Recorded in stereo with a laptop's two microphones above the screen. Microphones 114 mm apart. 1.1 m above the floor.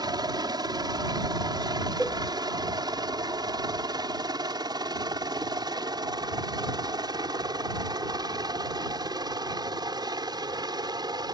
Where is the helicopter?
35° right (ahead or behind).